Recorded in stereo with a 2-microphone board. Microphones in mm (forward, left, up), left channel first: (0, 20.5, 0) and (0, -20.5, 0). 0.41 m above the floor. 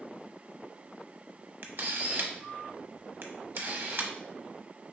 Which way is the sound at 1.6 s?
60° right (ahead or behind).